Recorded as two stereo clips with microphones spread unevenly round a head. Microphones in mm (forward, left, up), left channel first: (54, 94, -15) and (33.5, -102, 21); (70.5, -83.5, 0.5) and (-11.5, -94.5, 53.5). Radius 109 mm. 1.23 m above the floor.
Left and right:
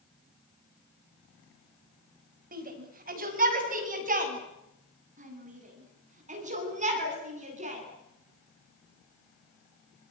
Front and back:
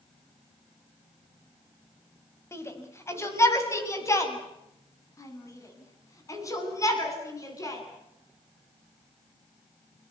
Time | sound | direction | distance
2.5 | a shout | 50° right | 6.5 m